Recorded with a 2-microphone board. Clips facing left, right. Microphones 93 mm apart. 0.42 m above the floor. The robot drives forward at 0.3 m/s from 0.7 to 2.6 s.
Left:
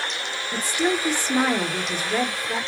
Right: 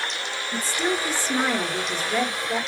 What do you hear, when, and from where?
0.5 s a woman speaking: 15° left (ahead or behind), 1.0 m